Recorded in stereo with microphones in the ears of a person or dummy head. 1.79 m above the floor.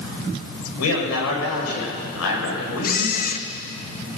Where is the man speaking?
85° left, 7.5 m.